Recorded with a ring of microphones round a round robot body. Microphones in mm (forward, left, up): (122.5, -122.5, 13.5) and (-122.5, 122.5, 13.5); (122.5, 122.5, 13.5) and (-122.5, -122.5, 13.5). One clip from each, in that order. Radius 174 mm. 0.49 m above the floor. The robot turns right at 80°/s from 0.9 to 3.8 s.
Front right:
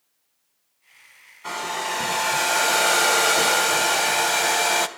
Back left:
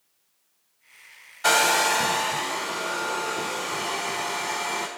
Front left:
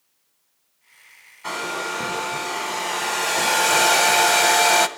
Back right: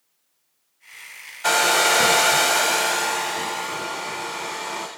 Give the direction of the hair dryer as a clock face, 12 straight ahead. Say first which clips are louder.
Back left 8 dB, back right 9 dB; 6 o'clock.